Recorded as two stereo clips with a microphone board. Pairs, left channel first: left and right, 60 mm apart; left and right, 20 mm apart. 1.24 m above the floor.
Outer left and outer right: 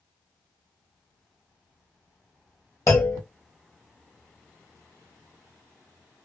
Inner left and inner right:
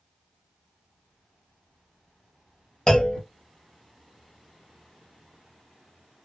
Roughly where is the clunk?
Left.